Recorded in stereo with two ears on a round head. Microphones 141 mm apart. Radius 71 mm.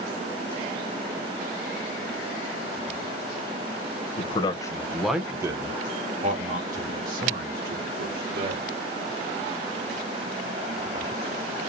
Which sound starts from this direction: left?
A man speaking, at 4.2 s.